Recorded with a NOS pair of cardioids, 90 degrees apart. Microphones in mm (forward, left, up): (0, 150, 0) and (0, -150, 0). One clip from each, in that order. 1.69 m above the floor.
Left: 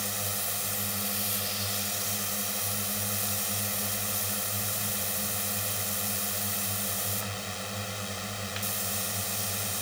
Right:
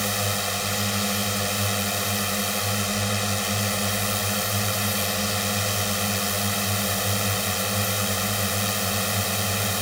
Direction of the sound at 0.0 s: 70° right.